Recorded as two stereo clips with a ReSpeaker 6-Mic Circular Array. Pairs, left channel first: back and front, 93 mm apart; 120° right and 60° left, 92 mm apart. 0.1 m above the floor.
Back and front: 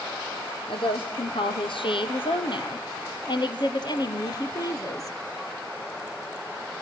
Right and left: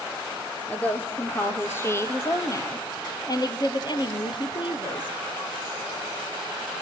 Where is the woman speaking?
165° left, 3.5 m; by 5.2 s 130° right, 2.5 m.